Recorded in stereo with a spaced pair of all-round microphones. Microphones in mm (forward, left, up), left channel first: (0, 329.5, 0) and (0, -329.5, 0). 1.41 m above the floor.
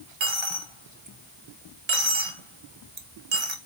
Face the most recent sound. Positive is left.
turn(degrees=-45)  # may be behind; listen again after turning